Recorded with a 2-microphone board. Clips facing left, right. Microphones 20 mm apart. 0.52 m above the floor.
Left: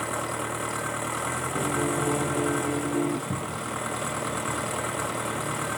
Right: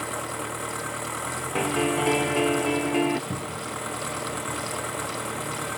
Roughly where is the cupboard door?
Right.